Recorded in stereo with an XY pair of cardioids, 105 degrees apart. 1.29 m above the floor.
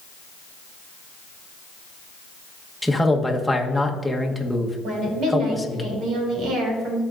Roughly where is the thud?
No thud in this recording.